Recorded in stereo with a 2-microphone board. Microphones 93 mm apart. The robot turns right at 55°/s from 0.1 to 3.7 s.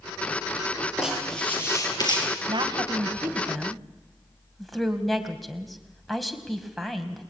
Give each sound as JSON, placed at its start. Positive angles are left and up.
{"t": 1.0, "sound": "writing", "azimuth_deg": -10, "distance_m": 6.5}
{"t": 2.5, "sound": "a woman speaking", "side_deg": -60, "distance_m": 2.5}